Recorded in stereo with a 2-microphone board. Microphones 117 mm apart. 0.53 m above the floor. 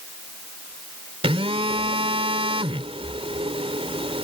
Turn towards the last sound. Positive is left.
turn(degrees=-55)  # may be behind; listen again after turning